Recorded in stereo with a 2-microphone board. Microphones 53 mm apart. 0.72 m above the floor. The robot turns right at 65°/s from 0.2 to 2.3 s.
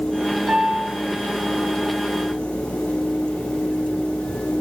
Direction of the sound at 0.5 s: Centre (ahead or behind).